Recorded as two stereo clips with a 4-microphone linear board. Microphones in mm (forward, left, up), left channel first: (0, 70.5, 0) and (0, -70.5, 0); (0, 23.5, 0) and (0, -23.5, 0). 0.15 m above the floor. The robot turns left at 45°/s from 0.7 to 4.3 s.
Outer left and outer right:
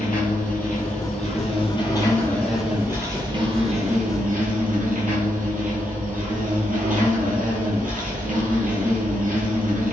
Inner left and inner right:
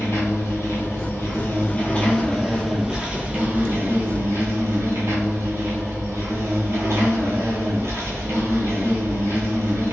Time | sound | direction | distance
0.0 | an insect | 85° left | 1.0 m